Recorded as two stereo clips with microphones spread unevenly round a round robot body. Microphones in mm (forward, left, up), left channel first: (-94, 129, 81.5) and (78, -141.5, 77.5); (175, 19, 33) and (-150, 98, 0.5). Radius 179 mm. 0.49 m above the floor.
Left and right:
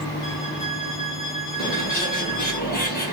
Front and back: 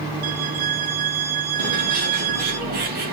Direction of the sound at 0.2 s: 160° left.